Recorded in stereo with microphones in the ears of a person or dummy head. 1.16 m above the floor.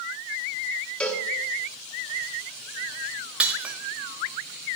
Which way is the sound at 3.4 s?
5° right (ahead or behind).